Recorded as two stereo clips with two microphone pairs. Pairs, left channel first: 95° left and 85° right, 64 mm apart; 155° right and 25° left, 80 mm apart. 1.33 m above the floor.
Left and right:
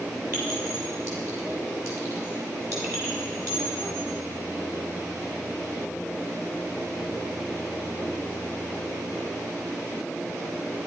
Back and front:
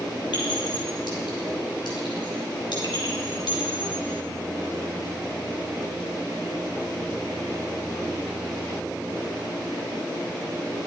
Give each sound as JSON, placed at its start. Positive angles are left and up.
{"t": 0.3, "sound": "a clink", "azimuth_deg": -130, "distance_m": 6.0}